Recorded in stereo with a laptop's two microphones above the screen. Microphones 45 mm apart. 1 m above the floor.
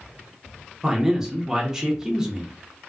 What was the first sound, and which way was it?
A man speaking, 15° right (ahead or behind).